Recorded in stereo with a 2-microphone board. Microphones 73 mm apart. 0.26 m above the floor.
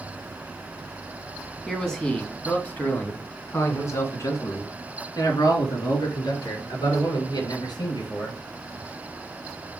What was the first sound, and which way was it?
A man speaking, 5° left (ahead or behind).